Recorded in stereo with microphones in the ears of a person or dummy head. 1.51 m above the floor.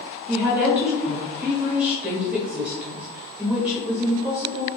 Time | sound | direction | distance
0.3 | a woman speaking | 5° right (ahead or behind) | 1.0 m